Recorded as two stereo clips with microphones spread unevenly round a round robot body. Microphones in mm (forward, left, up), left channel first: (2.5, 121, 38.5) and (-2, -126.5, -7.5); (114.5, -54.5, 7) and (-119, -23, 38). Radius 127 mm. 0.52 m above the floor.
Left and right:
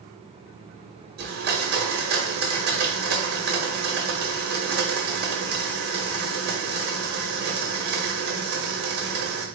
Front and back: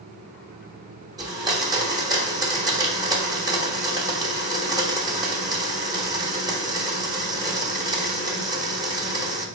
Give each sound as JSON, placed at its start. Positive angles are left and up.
{"t": 1.2, "sound": "a blender", "azimuth_deg": -110, "distance_m": 1.1}